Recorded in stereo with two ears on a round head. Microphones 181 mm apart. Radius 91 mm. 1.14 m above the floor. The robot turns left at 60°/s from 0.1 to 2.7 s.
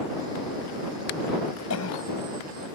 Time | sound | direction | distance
1.7 | a cough | 80° left | ?